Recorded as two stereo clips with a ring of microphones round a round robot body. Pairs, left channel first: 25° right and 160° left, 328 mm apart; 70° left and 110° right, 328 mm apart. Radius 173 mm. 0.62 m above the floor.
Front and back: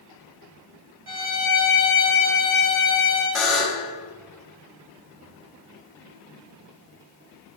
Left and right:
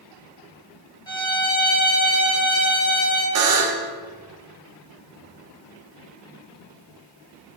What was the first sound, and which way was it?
A violin, 145° left.